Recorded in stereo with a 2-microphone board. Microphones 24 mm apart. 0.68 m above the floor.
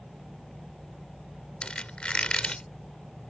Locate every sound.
1.6 s a squeak: 50° left (ahead or behind)